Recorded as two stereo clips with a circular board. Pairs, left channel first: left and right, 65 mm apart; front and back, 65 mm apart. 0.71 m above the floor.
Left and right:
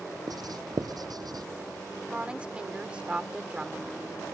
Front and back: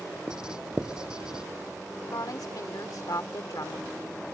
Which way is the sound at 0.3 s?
100° right.